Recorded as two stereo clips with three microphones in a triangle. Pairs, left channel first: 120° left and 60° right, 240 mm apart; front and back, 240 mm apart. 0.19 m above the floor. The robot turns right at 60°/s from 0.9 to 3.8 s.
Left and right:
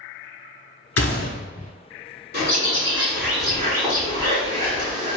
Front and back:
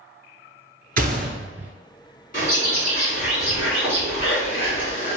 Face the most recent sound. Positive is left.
turn(degrees=50)